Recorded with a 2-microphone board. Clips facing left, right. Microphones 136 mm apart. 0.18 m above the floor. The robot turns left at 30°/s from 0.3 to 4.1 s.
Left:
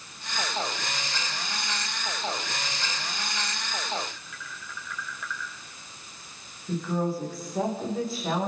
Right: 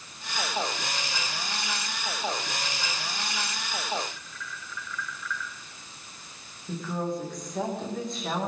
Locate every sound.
4.1 s tapping: 75° left (ahead or behind), 5 m
6.7 s a woman speaking: 5° left (ahead or behind), 8.5 m